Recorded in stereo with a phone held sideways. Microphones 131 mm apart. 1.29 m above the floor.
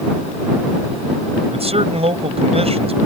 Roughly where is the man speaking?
Right.